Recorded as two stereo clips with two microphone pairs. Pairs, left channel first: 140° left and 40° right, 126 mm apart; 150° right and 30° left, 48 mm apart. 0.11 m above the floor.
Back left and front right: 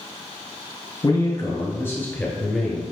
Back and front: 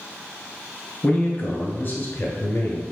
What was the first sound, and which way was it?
A man speaking, 170° left.